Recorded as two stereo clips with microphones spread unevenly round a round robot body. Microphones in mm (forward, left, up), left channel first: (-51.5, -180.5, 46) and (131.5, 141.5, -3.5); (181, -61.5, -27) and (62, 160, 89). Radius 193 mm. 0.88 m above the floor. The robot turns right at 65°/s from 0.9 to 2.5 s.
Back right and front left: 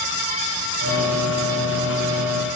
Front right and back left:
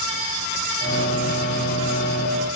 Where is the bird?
No bird in this recording.